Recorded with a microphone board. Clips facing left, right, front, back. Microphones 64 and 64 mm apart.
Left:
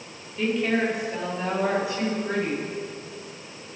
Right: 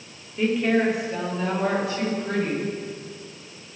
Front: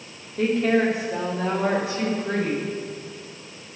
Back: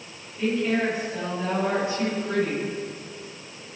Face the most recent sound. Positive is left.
turn(degrees=5)